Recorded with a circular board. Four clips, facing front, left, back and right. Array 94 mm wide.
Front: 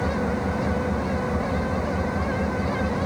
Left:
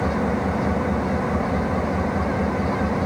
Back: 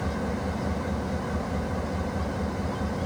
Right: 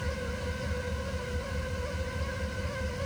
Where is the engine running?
75° left.